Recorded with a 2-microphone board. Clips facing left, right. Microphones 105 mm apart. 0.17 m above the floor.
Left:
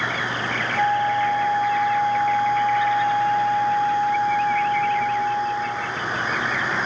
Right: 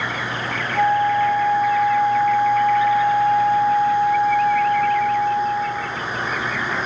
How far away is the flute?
About 1.1 m.